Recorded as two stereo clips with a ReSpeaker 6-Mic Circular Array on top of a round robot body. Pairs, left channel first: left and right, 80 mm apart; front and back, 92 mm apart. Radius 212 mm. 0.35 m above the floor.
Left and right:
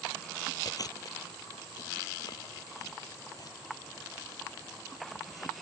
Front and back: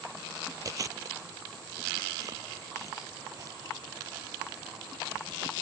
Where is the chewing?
130° left.